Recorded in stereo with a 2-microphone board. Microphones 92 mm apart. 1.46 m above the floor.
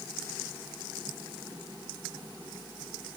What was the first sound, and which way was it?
Only background noise.